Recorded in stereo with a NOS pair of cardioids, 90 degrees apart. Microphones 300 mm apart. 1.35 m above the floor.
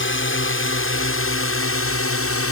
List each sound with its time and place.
0.0 s a drone: 45° left; by 2.5 s 55° left